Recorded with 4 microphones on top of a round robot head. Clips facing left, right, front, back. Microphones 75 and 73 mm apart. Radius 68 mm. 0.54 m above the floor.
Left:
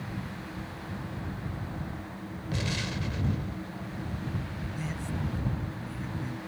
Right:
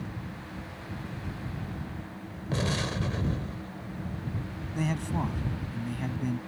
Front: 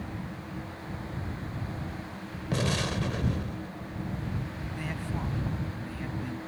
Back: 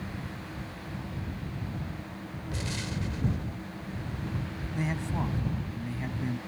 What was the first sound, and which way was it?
An explosion, 35° right.